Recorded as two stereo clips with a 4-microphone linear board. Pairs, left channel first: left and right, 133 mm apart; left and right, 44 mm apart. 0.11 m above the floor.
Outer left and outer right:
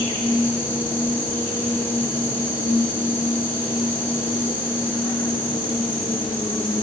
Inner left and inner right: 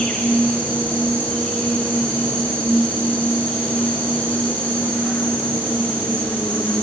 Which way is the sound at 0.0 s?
35° left (ahead or behind).